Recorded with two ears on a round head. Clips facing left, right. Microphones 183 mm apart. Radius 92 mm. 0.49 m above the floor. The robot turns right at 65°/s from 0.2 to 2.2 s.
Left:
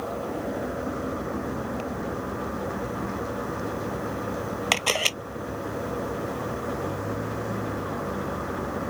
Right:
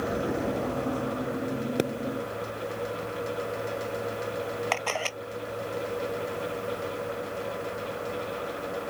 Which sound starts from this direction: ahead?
A vehicle, at 0.0 s.